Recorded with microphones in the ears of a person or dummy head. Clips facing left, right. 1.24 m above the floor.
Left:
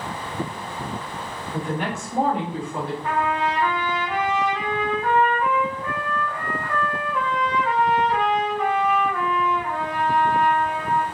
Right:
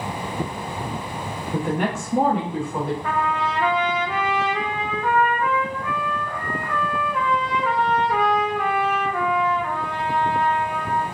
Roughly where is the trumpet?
Right.